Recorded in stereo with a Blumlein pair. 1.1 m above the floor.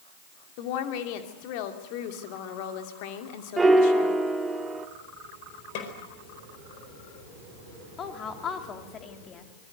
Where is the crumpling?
No crumpling in this recording.